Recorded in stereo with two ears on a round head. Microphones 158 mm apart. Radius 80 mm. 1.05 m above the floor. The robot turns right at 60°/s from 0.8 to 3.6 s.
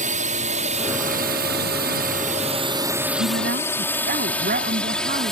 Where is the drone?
45° right (ahead or behind); by 5.3 s centre (ahead or behind).